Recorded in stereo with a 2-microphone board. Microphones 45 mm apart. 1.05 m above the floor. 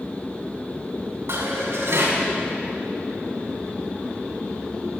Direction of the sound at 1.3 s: 90° right.